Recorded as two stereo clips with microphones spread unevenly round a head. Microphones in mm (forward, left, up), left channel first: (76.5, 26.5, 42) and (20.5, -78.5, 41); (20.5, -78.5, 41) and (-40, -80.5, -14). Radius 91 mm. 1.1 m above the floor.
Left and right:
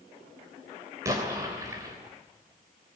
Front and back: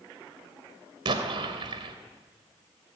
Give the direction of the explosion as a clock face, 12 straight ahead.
6 o'clock.